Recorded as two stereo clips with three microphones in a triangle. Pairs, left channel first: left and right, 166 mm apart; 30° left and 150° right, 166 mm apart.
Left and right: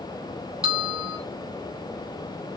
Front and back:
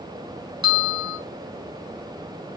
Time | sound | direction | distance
0.6 | a bell | 110° right | 1.1 m